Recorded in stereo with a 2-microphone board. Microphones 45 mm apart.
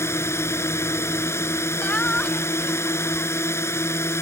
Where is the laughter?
30° left (ahead or behind).